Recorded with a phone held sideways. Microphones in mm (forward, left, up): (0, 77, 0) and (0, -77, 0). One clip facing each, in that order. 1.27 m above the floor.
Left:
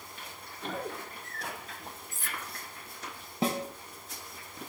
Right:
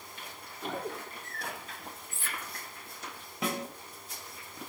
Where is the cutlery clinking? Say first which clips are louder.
Even; 40° left (ahead or behind), 0.7 m.